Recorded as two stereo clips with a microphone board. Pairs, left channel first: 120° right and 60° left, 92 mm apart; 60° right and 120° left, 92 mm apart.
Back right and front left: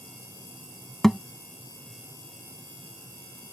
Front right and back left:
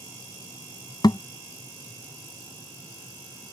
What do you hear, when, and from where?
1.0 s a thud: 35° right